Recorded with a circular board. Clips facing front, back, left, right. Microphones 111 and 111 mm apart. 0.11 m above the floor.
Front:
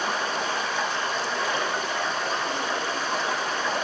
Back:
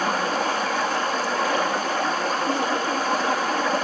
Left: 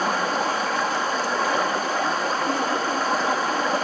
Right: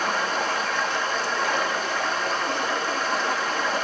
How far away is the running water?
About 3 m.